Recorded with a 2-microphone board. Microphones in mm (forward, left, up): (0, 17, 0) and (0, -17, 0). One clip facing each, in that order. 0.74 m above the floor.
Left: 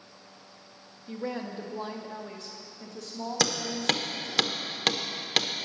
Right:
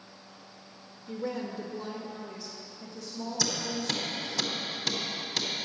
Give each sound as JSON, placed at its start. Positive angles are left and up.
{"t": 1.1, "sound": "a woman speaking", "side_deg": 30, "distance_m": 1.0}
{"t": 3.4, "sound": "hammering", "side_deg": 70, "distance_m": 0.8}